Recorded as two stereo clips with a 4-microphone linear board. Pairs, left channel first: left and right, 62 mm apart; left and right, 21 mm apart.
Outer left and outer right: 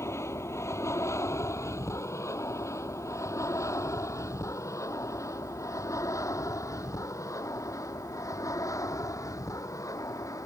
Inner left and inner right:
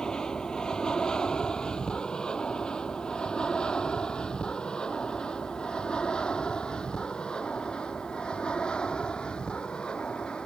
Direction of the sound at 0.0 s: 45° left (ahead or behind).